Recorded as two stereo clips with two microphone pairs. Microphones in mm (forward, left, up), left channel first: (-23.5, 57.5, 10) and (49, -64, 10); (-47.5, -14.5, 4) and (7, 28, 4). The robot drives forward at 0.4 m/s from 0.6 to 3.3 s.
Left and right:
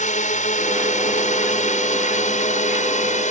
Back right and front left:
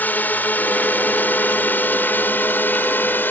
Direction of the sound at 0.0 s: 150° left.